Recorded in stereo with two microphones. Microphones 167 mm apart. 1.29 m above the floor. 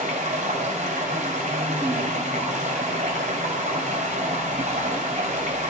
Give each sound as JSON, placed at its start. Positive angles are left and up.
{"t": 0.0, "sound": "running water", "side_deg": -50, "distance_m": 2.5}